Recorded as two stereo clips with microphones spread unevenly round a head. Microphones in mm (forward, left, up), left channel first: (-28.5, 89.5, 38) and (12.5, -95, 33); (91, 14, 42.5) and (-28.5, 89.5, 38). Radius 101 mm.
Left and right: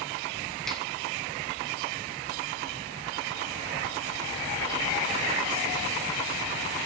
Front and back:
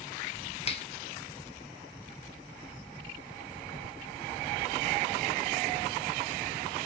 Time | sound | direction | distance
0.7 | a finger snap | 15° left | 0.8 m